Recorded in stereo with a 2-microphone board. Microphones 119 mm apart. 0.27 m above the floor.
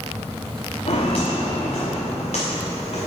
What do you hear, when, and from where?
0.9 s footsteps: 65° left (ahead or behind), 1.7 m; by 3.1 s 80° left, 3 m